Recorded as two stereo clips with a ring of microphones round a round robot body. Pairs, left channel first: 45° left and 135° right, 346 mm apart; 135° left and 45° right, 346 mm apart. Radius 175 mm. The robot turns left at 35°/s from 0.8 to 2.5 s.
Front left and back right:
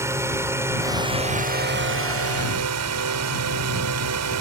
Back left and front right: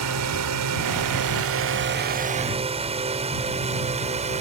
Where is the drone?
55° right; by 4.4 s 110° right.